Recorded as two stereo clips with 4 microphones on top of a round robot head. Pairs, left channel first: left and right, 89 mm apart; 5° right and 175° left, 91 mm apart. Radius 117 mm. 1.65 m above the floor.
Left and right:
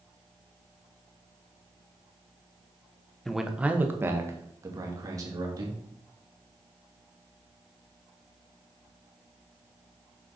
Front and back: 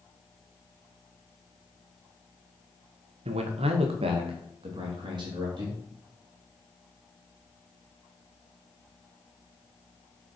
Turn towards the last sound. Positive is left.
turn(degrees=-140)